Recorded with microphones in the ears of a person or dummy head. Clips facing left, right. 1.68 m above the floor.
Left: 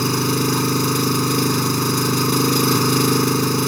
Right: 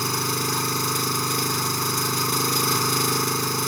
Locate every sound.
0.0 s an engine running: 55° left (ahead or behind)